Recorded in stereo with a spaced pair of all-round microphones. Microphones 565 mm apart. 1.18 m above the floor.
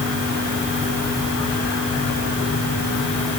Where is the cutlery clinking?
No cutlery clinking in this recording.